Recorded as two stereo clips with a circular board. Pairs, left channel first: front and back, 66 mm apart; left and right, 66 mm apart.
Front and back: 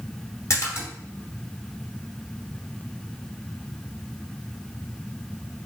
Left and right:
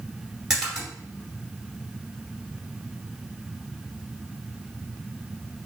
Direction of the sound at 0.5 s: 5° right.